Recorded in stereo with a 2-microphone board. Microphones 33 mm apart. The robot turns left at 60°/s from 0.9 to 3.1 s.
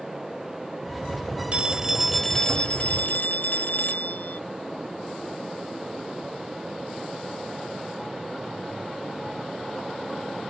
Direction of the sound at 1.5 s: 140° right.